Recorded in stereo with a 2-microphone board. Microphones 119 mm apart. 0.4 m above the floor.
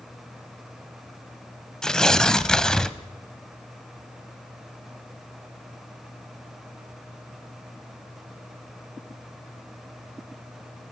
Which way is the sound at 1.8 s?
5° left (ahead or behind).